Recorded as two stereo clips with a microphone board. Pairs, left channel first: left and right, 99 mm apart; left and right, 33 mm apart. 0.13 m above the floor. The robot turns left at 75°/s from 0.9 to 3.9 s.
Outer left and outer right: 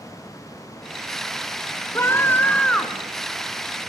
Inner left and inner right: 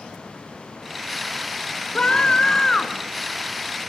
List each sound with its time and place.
1.9 s a scream: 25° left (ahead or behind), 1.5 m; by 3.0 s centre (ahead or behind), 1.5 m